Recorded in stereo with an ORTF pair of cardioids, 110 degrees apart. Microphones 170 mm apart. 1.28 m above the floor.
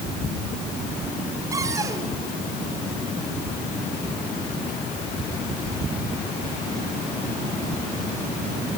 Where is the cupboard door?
20° right, 5 m.